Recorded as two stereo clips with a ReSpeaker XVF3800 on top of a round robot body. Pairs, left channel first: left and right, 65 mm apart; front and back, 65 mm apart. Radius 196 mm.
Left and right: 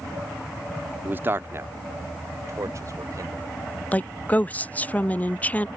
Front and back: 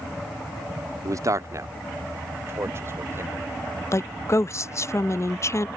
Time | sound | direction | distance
1.1 | a man speaking | 150° right | ?
3.9 | a woman speaking | 30° left | ?